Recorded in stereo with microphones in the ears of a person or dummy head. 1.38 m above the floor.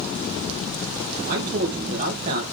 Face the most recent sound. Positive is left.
turn(degrees=-40)  # may be behind; listen again after turning